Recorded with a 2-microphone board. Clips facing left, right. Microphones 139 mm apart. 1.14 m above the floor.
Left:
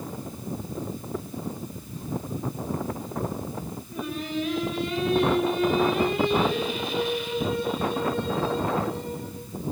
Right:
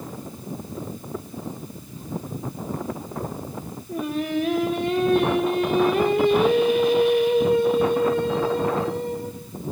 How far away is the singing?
About 2.5 m.